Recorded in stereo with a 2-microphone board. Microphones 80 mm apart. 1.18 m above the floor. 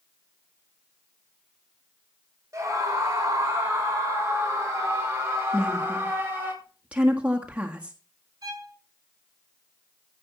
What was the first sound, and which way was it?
A scream, 45° right (ahead or behind).